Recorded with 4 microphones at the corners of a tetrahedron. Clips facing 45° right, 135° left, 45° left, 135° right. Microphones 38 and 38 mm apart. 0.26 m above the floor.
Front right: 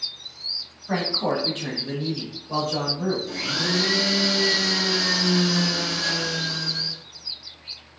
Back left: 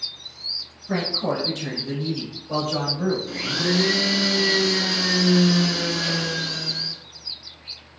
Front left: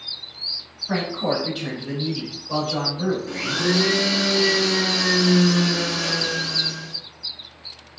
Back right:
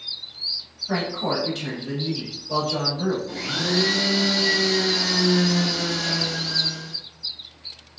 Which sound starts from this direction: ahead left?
A blender, at 3.3 s.